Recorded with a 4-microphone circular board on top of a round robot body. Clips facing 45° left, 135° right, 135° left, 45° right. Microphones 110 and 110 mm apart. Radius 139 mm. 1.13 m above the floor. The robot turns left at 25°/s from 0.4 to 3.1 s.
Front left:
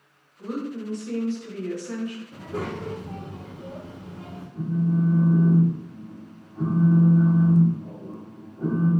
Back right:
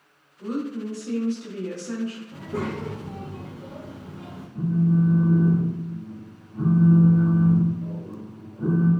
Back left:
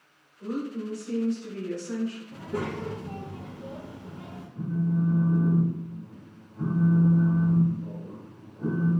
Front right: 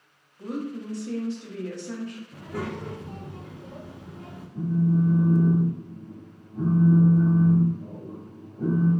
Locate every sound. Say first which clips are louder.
0.4 s a woman speaking: back right 2 dB, back left 1 dB; 40° right, 1.0 m; by 2.2 s 85° right, 1.0 m
2.3 s a child speaking: back right 2 dB, back left 1 dB; 160° left, 0.7 m; by 4.5 s 140° left, 0.7 m
4.5 s a phone buzzing: back right 3 dB, front right 4 dB; 40° right, 0.6 m